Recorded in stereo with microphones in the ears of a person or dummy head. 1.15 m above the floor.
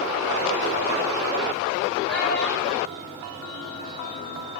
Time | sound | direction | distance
2.1 | a child speaking | 60° right (ahead or behind) | 3.5 m